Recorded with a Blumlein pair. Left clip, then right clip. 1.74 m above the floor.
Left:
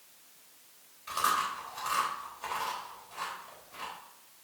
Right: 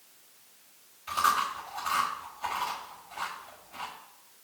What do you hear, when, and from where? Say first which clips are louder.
1.1 s chewing: right 3 dB; 10° left, 4 m